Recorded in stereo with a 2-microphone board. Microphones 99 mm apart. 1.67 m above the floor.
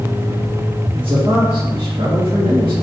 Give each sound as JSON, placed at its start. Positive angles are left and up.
{"t": 0.9, "sound": "a man speaking", "side_deg": -60, "distance_m": 2.0}